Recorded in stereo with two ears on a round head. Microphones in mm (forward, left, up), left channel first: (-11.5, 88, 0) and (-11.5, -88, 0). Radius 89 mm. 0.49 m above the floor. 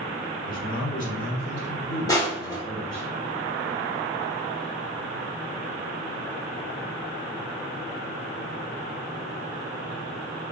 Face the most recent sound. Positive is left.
turn(degrees=20)  # may be behind; listen again after turning